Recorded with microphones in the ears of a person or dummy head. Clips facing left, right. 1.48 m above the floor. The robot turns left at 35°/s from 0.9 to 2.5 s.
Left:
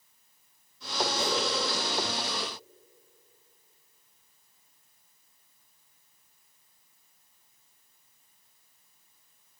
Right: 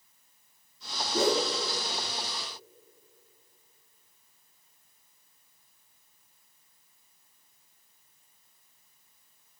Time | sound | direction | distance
1.1 | a whoosh | 60° right (ahead or behind) | 4 m